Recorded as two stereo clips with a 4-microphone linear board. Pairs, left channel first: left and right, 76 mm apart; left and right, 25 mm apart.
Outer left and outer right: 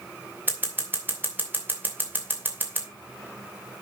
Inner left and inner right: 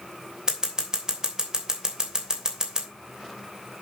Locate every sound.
0.5 s scissors: 25° right (ahead or behind), 2.5 m